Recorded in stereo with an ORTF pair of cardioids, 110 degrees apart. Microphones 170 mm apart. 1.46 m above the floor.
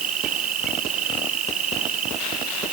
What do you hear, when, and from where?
0.0 s an insect: 55° right